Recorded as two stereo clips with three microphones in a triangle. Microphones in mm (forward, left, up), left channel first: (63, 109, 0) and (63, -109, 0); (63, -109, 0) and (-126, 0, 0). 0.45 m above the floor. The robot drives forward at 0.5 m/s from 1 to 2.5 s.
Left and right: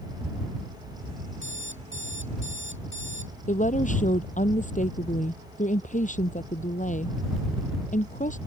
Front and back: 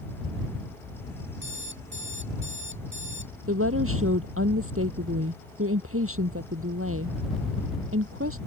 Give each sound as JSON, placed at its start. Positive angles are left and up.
{"t": 1.4, "sound": "an alarm clock", "azimuth_deg": 120}
{"t": 3.5, "sound": "a woman speaking", "azimuth_deg": 145}